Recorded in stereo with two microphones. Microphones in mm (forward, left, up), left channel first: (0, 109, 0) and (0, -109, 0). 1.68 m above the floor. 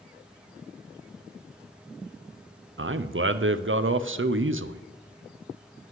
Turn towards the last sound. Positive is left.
turn(degrees=-65)  # may be behind; listen again after turning